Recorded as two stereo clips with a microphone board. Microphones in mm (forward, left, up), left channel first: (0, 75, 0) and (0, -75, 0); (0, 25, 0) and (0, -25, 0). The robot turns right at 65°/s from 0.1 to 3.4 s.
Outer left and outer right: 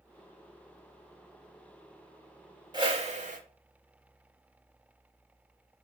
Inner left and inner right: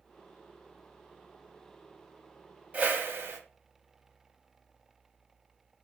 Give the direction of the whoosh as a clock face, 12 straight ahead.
5 o'clock.